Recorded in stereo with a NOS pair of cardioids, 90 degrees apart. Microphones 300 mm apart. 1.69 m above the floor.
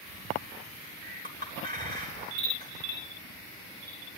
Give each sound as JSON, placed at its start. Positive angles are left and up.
{"t": 1.2, "sound": "a clink", "azimuth_deg": -30, "distance_m": 3.5}